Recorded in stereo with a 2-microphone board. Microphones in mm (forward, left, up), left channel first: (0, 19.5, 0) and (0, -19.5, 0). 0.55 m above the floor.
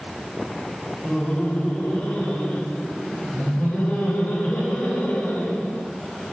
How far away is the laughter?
About 1.2 m.